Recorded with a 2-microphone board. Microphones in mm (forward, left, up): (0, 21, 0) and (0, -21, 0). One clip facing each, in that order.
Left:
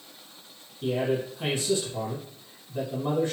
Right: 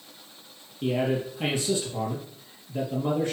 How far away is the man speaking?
About 3.5 m.